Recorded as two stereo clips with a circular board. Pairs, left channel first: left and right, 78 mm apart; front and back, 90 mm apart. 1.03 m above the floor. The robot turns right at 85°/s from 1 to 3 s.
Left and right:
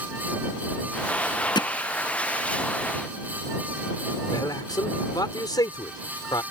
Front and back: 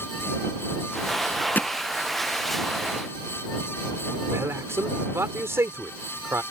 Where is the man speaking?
120° left.